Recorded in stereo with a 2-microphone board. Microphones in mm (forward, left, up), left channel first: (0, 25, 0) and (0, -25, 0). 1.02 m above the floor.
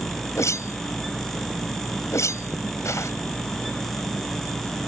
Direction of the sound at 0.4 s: 80° left.